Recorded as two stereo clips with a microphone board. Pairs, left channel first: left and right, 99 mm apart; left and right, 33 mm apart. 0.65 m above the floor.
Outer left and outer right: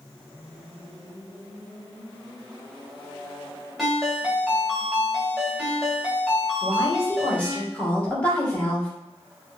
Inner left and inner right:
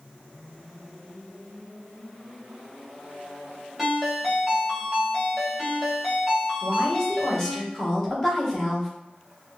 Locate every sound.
3.8 s a ringtone: centre (ahead or behind), 2.5 m
6.6 s a woman speaking: 10° left (ahead or behind), 2.5 m